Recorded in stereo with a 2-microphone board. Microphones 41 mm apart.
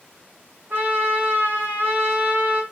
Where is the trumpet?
45° right (ahead or behind), 1.6 m.